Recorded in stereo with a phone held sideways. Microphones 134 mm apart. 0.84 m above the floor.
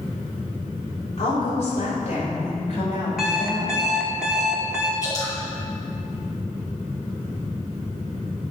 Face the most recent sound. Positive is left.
turn(degrees=25)  # may be behind; listen again after turning